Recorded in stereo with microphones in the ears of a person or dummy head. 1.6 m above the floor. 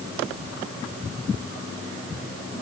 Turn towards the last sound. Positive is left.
No sound to turn to.